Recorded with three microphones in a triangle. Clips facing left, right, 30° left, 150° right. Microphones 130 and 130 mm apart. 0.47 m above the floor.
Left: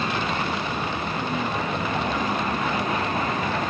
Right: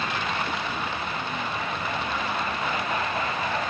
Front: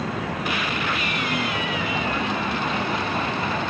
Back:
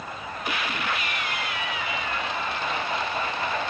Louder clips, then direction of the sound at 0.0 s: Left 3 dB, front 7 dB; 35° left.